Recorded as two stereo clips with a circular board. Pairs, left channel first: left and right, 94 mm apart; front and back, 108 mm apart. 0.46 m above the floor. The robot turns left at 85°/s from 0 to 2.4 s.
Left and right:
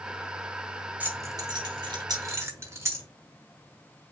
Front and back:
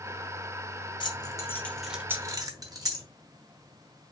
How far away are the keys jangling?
About 1.1 m.